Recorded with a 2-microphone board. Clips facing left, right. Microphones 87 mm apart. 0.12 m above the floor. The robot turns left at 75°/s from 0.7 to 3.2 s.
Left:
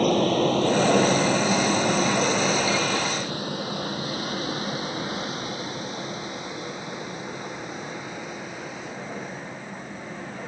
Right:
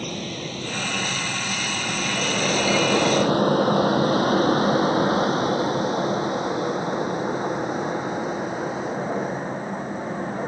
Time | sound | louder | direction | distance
0.0 | an aircraft | left 11 dB | 50° left (ahead or behind) | ?